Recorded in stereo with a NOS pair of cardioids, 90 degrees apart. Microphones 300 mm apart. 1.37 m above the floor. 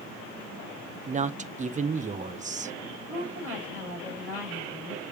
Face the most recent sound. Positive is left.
turn(degrees=-5)